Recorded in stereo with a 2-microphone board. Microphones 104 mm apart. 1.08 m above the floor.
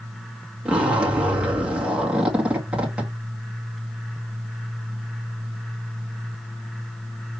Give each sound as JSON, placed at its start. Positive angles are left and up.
{"t": 0.7, "sound": "a zipper", "side_deg": -10, "distance_m": 2.0}